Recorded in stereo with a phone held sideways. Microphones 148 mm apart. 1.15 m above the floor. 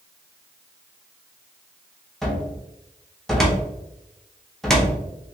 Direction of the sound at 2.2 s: Centre (ahead or behind).